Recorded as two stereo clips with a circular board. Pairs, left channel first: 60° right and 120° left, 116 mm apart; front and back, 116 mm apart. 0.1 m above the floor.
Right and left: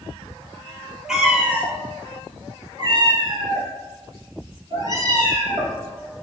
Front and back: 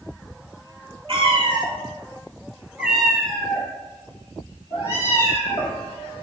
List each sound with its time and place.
1.1 s a cat meowing: 160° right, 0.9 m; by 5.8 s 65° left, 1.9 m